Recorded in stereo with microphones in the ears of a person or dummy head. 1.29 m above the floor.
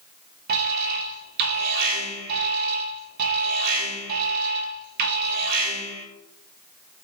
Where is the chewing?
I don't hear chewing.